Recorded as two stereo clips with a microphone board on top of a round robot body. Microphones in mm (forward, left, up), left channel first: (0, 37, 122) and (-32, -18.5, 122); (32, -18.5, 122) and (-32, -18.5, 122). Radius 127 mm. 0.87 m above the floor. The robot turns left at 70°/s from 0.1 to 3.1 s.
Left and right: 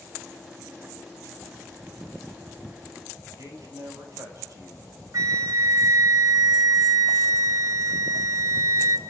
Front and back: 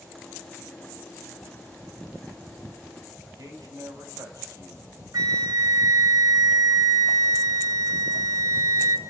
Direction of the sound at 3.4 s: 155° right.